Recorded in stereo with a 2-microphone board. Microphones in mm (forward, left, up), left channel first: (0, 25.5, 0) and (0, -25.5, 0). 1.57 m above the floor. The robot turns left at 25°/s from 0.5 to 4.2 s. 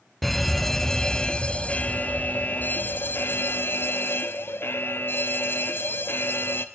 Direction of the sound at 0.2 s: 170° left.